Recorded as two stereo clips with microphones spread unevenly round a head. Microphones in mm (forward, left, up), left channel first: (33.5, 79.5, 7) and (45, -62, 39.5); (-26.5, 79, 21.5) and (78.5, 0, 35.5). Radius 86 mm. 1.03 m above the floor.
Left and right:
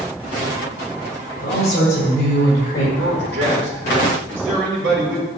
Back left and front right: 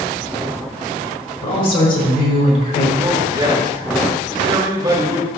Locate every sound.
1.4 s a woman speaking: 140° left, 4 m; by 2.9 s 150° left, 5 m
3.0 s a man speaking: 105° right, 3 m